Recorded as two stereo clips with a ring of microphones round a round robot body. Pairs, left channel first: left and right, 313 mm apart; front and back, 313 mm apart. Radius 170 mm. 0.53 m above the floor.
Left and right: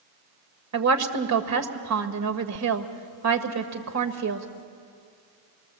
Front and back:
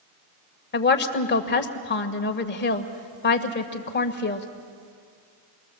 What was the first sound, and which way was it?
A woman speaking, 55° right.